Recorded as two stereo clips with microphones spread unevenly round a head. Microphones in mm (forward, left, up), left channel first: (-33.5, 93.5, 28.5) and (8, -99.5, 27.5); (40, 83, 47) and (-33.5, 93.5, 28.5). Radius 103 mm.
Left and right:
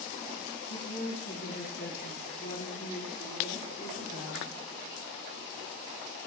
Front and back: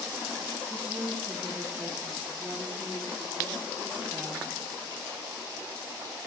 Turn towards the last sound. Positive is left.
turn(degrees=120)